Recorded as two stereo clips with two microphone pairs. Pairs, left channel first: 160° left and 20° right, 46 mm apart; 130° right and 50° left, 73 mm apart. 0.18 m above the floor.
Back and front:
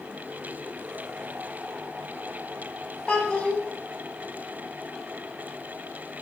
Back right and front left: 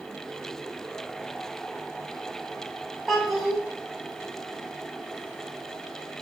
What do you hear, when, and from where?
3.1 s a child speaking: 145° left, 0.7 m